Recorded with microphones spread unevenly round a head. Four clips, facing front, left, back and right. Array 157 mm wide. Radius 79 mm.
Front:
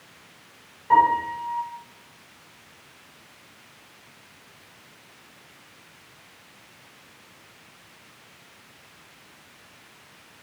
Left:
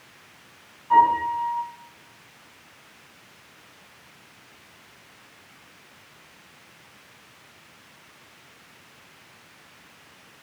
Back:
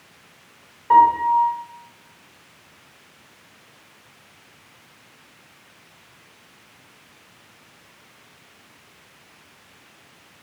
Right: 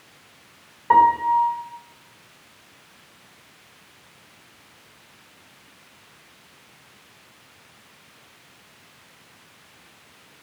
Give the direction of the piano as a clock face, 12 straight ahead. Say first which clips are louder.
Right 3 dB, back 5 dB; 3 o'clock.